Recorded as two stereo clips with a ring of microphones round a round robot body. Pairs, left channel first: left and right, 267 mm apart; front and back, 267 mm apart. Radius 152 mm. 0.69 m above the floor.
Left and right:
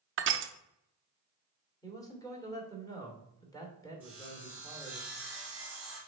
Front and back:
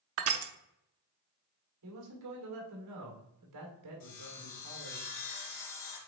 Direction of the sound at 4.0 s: 5° right.